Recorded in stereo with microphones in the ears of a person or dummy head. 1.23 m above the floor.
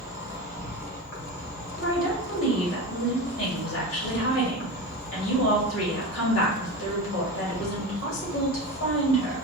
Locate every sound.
0.0 s an insect: 50° left (ahead or behind), 2.0 m
1.8 s a woman speaking: 85° left, 2.0 m